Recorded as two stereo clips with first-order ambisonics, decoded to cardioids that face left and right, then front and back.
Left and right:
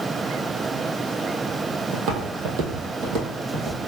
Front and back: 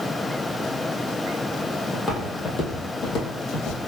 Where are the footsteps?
80° right, 1.3 m; by 3.8 s 35° right, 1.6 m.